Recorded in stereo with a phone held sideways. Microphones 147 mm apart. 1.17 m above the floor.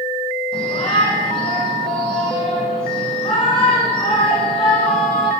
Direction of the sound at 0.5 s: 35° left (ahead or behind).